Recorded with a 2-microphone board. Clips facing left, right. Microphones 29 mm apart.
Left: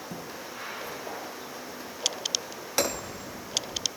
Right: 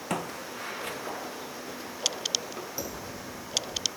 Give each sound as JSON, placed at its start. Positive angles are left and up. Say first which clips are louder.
{"t": 0.1, "sound": "footsteps", "louder": "right 5 dB", "side_deg": -80}
{"t": 2.8, "sound": "hammering", "louder": "left 7 dB", "side_deg": 80}